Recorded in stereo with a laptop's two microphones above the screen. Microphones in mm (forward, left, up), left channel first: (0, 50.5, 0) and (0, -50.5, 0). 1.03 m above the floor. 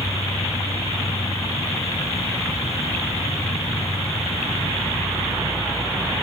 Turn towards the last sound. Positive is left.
turn(degrees=75)  # may be behind; listen again after turning